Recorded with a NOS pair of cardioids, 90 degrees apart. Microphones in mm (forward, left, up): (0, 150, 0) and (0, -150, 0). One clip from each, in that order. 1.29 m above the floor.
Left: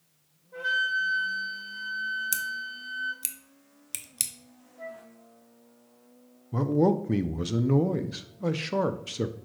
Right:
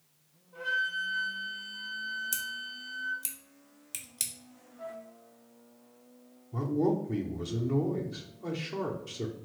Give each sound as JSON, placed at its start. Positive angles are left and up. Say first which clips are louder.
{"t": 0.5, "sound": "a flute", "louder": "left 4 dB", "azimuth_deg": 60, "distance_m": 1.7}
{"t": 2.3, "sound": "scissors", "louder": "left 4 dB", "azimuth_deg": 30, "distance_m": 0.7}
{"t": 4.8, "sound": "a flute", "louder": "left 1 dB", "azimuth_deg": 45, "distance_m": 1.6}
{"t": 6.5, "sound": "a man speaking", "louder": "left 5 dB", "azimuth_deg": 45, "distance_m": 0.6}